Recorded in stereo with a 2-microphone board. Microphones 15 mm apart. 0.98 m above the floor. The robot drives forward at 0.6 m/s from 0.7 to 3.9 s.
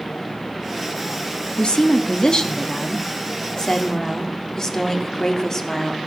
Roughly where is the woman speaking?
Left.